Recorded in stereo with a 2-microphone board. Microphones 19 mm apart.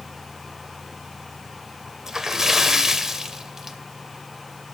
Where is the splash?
25° right (ahead or behind), 0.6 m.